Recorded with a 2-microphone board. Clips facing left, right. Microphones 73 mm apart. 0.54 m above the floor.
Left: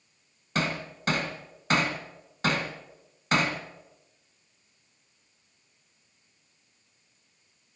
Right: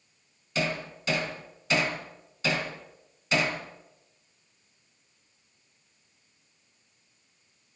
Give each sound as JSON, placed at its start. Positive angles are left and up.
{"t": 0.6, "sound": "hammering", "side_deg": 50, "distance_m": 2.5}